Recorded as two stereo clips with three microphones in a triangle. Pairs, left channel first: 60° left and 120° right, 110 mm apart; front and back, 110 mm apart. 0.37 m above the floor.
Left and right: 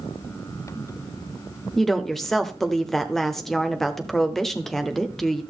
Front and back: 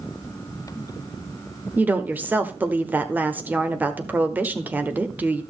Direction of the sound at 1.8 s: 140° left.